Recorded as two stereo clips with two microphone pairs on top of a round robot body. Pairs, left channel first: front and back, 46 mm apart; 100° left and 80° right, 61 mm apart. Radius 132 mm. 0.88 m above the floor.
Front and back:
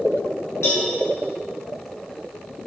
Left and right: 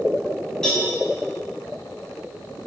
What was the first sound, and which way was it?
A cowbell, 20° left.